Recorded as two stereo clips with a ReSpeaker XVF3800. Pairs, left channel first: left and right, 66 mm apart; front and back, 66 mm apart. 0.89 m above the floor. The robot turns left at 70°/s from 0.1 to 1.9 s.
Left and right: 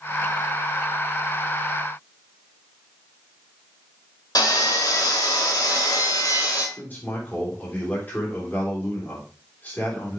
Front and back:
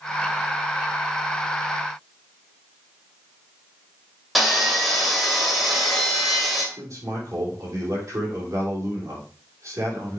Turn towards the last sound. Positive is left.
turn(degrees=150)